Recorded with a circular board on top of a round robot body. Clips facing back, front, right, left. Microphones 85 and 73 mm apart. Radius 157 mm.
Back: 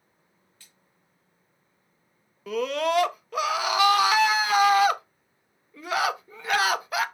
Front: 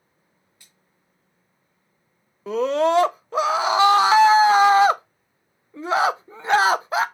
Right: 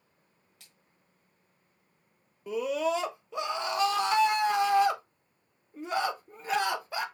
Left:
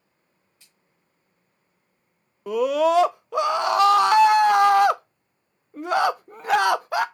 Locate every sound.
0.6 s a splash: 75° right, 1.0 m
2.5 s a scream: 60° left, 0.5 m